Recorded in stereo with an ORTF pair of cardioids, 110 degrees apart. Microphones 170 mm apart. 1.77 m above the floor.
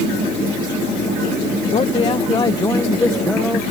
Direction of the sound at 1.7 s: 35° left.